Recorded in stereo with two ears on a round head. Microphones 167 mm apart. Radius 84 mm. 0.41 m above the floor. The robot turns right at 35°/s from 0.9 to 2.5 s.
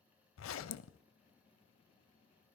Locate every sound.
0.4 s a zipper: 70° left (ahead or behind), 0.5 m; by 1.0 s 75° left (ahead or behind), 0.5 m